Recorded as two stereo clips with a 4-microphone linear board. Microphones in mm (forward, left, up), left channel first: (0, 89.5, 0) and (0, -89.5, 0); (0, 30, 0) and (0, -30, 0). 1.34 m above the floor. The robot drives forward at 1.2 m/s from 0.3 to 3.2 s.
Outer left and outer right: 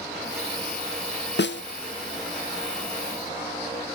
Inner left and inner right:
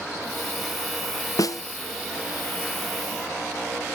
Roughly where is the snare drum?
Left.